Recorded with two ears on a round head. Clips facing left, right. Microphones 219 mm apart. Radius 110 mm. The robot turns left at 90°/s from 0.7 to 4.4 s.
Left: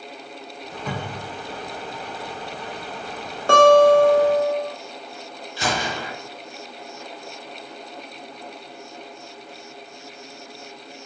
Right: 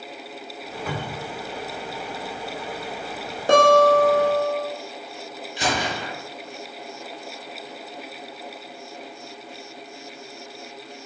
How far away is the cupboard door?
About 1.6 m.